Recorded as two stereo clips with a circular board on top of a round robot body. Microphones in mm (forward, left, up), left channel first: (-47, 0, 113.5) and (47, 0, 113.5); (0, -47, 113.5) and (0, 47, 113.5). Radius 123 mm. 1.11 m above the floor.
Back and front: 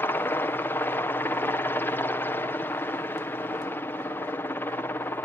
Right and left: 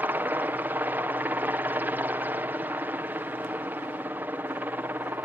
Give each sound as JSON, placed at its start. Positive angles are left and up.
{"t": 0.0, "sound": "a helicopter", "azimuth_deg": 140}